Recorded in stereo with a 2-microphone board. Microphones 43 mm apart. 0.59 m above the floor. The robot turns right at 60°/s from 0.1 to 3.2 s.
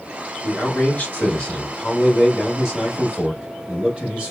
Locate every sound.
0.4 s a man speaking: 75° left, 1.1 m; by 4.3 s 120° right, 1.1 m